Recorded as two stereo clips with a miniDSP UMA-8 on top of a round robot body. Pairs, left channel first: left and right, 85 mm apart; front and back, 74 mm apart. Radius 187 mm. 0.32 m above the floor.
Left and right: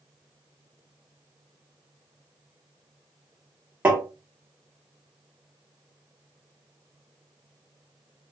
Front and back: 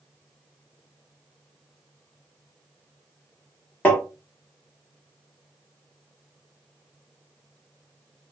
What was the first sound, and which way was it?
Tapping, 45° right.